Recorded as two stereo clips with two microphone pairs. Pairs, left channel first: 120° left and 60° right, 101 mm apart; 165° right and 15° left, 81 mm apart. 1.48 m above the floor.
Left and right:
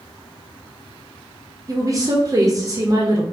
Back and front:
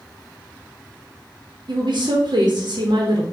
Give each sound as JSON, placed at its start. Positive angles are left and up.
{"t": 1.7, "sound": "a woman speaking", "azimuth_deg": -5, "distance_m": 0.7}